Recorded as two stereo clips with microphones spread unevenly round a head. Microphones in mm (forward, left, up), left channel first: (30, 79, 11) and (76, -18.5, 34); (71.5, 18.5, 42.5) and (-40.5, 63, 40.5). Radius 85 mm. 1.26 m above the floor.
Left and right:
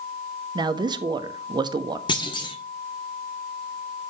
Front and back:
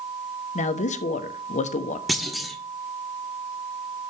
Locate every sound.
0.6 s a man speaking: 10° right, 0.9 m
2.1 s a clunk: 65° left, 1.3 m